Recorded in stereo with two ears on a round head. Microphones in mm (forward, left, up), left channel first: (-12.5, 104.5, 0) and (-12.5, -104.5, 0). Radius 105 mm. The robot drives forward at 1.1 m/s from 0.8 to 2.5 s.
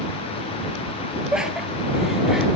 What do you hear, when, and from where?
1.3 s laughter: 5° right (ahead or behind), 1.2 m; by 2.5 s centre (ahead or behind), 2 m